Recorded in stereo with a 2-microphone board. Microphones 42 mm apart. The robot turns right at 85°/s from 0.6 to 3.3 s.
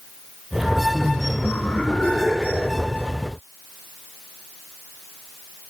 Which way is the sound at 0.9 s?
35° left.